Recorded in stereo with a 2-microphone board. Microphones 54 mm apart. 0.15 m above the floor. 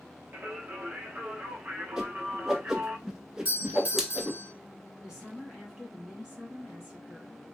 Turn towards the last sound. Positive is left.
turn(degrees=-10)  # may be behind; listen again after turning